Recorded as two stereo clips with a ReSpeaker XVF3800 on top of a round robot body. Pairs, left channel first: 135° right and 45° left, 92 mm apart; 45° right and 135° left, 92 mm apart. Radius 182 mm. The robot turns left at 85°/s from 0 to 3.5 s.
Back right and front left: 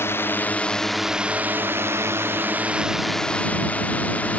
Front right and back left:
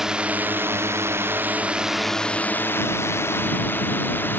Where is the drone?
145° right; by 4.4 s 80° right.